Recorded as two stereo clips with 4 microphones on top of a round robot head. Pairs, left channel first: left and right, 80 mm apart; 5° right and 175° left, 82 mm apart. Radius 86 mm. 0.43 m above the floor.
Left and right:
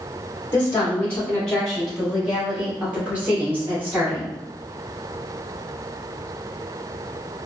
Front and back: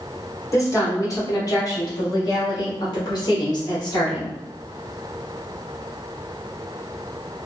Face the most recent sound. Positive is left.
turn(degrees=-30)